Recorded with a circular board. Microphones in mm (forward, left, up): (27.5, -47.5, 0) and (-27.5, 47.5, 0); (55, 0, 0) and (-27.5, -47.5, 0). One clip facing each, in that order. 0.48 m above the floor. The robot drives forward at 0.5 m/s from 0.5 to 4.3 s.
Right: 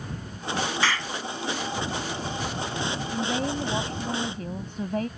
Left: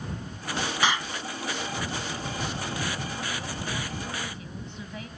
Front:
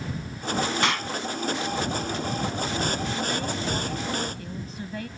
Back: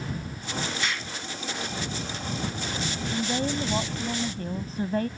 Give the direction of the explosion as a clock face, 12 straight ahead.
10 o'clock.